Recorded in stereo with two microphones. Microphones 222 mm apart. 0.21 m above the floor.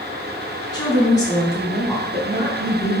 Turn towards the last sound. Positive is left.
turn(degrees=5)  # may be behind; listen again after turning